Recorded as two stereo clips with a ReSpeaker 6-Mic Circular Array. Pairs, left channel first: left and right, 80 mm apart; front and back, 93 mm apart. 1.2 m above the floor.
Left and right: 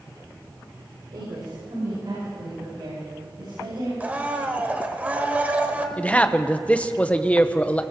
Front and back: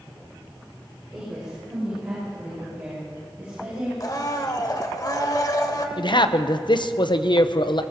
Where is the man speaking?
20° left, 0.7 m.